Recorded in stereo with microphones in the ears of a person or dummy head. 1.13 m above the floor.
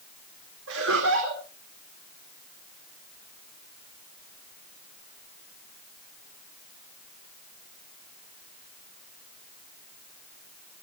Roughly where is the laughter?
Right.